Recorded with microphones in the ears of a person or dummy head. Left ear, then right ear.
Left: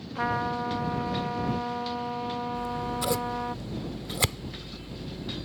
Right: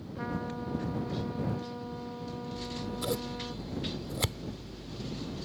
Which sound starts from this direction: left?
A trumpet, at 0.1 s.